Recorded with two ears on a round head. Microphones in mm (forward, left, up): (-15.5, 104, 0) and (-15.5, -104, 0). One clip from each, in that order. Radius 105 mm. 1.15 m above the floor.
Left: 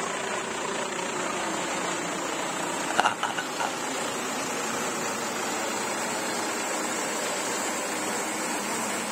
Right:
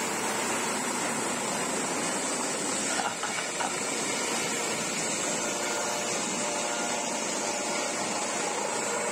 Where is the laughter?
70° left (ahead or behind), 0.6 m; by 4.0 s 10° left (ahead or behind), 1.7 m.